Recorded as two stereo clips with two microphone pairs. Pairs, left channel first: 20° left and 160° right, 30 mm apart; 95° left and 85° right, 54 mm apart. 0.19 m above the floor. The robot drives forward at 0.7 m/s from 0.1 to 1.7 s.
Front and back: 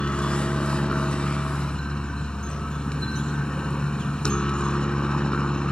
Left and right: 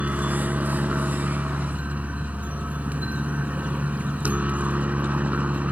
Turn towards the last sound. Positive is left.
turn(degrees=-30)